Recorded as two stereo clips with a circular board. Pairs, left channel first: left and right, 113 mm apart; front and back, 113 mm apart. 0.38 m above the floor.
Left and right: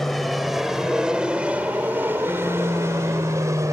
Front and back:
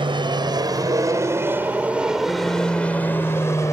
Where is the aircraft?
Straight behind; by 3.7 s 45° right.